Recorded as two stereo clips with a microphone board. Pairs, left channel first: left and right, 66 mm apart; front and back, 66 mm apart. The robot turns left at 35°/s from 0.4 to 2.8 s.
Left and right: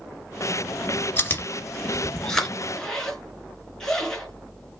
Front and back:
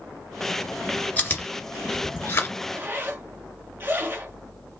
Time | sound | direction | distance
1.2 | chewing | 50° left | 1.8 m
2.6 | a zipper | 175° left | 1.8 m